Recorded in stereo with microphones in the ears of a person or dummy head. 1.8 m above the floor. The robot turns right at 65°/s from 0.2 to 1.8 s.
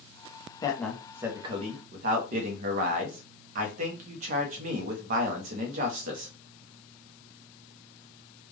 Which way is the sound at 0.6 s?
155° left.